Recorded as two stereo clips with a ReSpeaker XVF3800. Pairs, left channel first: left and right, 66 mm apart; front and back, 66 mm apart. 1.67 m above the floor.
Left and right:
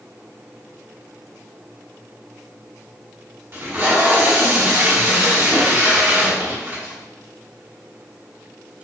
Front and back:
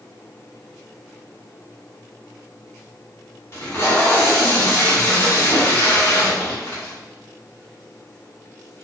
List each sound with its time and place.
3.5 s tape being pulled: 45° right, 1.9 m